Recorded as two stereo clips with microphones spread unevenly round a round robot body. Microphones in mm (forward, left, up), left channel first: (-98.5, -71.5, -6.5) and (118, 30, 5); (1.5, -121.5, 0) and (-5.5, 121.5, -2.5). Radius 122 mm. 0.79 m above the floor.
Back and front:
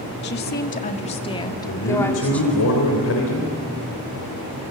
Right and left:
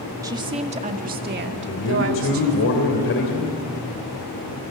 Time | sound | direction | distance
0.2 | a woman speaking | 165° left | 1.7 m
1.7 | a man speaking | 130° right | 3 m